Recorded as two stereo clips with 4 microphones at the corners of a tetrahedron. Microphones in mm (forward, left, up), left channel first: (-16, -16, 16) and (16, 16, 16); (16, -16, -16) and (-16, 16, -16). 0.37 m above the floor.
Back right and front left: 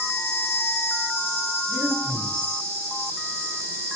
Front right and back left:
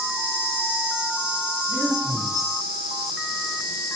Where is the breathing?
5° right, 1.7 m.